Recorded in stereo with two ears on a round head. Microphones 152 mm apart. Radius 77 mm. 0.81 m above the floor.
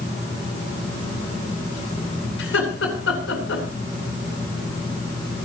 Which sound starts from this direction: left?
Laughter, at 2.4 s.